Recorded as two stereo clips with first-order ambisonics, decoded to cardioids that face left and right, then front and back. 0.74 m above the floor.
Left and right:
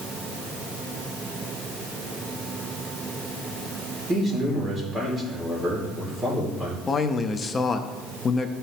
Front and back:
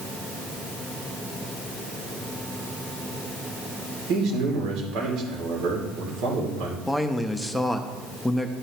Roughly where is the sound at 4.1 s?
Behind.